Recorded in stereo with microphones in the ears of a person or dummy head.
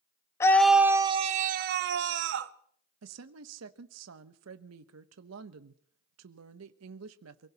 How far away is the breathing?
No breathing in this recording.